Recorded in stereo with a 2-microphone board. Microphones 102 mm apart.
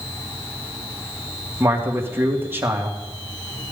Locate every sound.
1.6 s a man speaking: 20° right (ahead or behind), 2.5 m